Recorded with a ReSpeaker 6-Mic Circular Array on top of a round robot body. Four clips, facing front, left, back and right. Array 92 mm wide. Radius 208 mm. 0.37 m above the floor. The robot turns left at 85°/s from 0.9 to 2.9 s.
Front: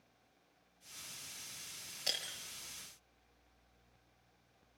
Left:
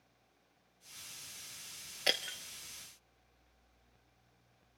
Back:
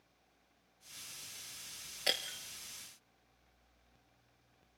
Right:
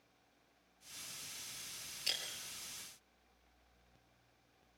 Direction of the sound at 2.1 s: 115° left.